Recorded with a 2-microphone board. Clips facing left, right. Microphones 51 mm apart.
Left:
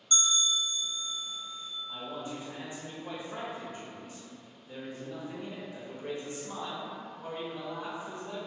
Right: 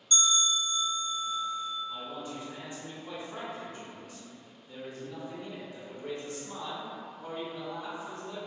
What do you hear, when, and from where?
0.1 s a bell: 30° left (ahead or behind), 0.8 m
1.9 s a man speaking: 30° left (ahead or behind), 0.6 m